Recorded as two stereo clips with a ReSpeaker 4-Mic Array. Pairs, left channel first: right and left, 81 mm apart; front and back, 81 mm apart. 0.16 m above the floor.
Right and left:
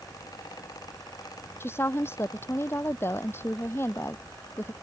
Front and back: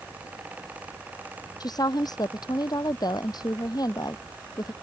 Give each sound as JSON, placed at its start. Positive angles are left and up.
{"t": 1.6, "sound": "a woman speaking", "azimuth_deg": -30}